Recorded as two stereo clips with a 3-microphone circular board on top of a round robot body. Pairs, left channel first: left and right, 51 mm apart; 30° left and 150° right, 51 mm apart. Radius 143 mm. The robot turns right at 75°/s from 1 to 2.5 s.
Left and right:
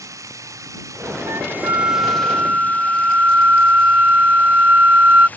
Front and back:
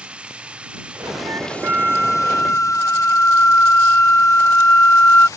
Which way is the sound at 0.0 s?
80° right.